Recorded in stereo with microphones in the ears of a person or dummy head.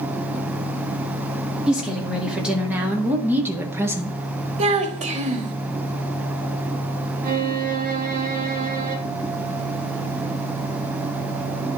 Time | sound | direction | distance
1.7 | a woman speaking | centre (ahead or behind) | 2.5 m
4.6 | a child speaking | 45° right (ahead or behind) | 1.1 m
7.2 | a violin | 45° right (ahead or behind) | 1.4 m